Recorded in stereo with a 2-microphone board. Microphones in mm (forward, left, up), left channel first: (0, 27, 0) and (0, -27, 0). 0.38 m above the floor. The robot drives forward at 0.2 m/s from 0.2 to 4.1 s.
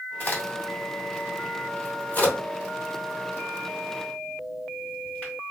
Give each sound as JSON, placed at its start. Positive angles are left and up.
{"t": 0.2, "sound": "a crack", "side_deg": 35, "distance_m": 1.1}